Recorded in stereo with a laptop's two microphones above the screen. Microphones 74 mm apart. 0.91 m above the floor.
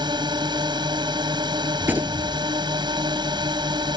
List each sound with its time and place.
0.0 s a drone: 80° right
1.8 s a gunshot: 25° right (ahead or behind)